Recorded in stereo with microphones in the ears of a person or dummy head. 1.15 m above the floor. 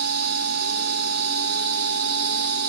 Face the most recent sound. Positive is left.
turn(degrees=-55)  # may be behind; listen again after turning